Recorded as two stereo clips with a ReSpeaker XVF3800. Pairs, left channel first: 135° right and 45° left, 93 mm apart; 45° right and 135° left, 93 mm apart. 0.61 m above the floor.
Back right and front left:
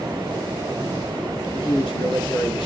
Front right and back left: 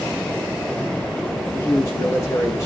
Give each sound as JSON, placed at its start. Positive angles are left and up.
{"t": 1.5, "sound": "a man speaking", "azimuth_deg": -105, "distance_m": 7.5}